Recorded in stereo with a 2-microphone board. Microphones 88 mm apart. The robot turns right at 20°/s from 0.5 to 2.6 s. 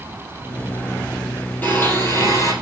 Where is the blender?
25° left (ahead or behind), 3.5 m; by 2.5 s 40° left (ahead or behind), 3.5 m.